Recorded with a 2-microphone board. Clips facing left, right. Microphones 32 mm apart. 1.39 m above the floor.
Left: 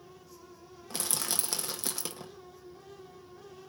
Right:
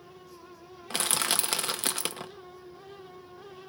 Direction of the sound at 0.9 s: 55° right (ahead or behind).